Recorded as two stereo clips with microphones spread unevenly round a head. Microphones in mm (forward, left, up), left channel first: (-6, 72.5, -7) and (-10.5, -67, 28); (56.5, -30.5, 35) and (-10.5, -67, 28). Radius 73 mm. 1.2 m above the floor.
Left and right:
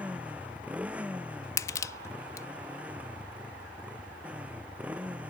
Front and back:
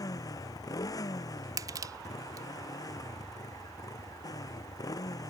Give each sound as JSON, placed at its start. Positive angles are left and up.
{"t": 0.0, "sound": "a motorcycle", "azimuth_deg": -10}
{"t": 1.6, "sound": "crushing", "azimuth_deg": 155}